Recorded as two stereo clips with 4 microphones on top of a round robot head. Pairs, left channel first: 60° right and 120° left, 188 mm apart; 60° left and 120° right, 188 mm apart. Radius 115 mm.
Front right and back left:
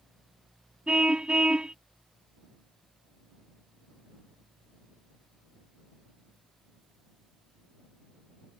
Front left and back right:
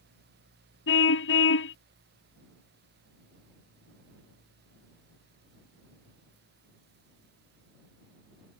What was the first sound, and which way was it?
A car horn, 35° left.